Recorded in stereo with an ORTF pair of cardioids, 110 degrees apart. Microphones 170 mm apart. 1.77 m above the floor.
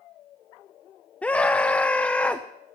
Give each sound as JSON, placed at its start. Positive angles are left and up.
{"t": 1.2, "sound": "a scream", "azimuth_deg": 10, "distance_m": 0.6}